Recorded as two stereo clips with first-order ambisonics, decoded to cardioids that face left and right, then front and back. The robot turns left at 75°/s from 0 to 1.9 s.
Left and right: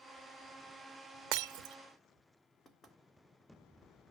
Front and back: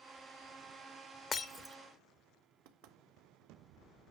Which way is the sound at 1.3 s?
75° right.